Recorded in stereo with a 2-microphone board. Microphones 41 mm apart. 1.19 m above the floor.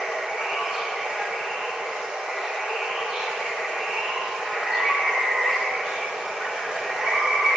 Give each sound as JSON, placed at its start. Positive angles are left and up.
{"t": 0.0, "sound": "running water", "side_deg": -20, "distance_m": 1.2}